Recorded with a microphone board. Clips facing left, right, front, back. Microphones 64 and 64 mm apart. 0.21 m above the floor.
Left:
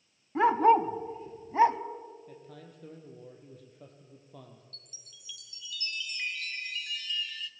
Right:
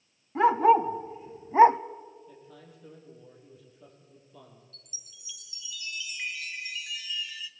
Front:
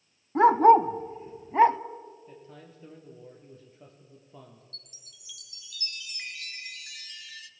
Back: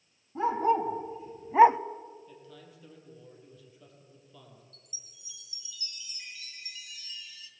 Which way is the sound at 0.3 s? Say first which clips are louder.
Right 2 dB, front 10 dB; straight ahead.